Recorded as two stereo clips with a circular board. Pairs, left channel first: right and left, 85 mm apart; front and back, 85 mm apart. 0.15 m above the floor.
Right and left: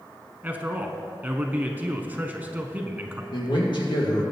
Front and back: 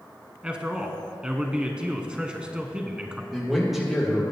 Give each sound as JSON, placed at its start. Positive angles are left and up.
{"t": 0.4, "sound": "a man speaking", "azimuth_deg": 120, "distance_m": 1.1}
{"t": 3.3, "sound": "a man speaking", "azimuth_deg": -95, "distance_m": 3.0}